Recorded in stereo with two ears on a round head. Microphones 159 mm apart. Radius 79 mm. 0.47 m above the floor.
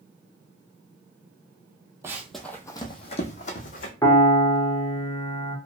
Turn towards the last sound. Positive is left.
turn(degrees=15)  # may be behind; listen again after turning